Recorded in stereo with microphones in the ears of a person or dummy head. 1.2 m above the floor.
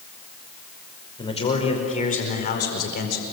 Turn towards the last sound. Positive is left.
turn(degrees=60)  # may be behind; listen again after turning